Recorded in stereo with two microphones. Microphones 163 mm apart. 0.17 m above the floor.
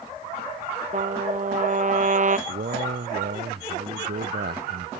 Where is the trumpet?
55° right (ahead or behind).